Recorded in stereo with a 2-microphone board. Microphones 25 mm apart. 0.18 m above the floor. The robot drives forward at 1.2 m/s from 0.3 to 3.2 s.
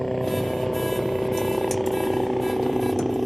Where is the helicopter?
5° left (ahead or behind); by 3.3 s centre (ahead or behind).